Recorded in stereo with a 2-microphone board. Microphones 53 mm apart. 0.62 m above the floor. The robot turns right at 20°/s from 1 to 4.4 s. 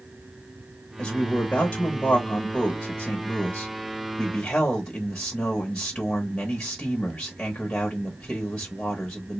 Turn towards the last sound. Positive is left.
turn(degrees=15)  # may be behind; listen again after turning